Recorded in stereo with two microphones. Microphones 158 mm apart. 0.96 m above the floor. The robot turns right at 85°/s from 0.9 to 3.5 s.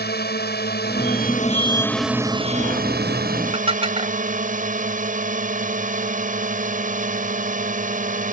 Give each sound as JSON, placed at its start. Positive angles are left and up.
{"t": 0.0, "sound": "a drone", "azimuth_deg": 85}
{"t": 3.5, "sound": "dishes clattering", "side_deg": -35}